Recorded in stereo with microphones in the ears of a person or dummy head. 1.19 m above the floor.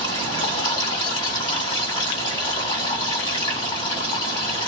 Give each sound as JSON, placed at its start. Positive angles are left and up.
{"t": 0.0, "sound": "running water", "side_deg": 25, "distance_m": 1.8}